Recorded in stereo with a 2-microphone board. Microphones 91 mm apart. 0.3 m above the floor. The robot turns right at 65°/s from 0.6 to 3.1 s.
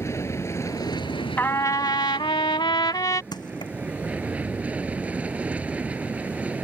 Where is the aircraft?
35° left; by 6.6 s 165° right.